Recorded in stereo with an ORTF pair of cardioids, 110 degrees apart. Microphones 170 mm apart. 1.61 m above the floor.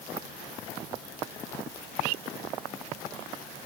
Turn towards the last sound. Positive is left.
No sound to turn to.